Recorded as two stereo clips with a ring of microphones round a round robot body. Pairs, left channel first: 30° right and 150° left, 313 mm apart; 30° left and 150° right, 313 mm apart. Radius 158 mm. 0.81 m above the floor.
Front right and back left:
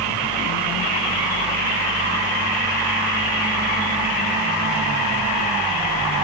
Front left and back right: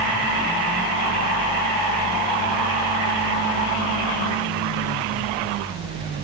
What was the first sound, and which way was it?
Only background noise.